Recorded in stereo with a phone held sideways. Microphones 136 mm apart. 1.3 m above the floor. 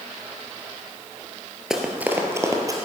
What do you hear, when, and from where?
1.7 s running footsteps: 5° right (ahead or behind), 1.7 m; by 2.8 s 25° right (ahead or behind), 2.5 m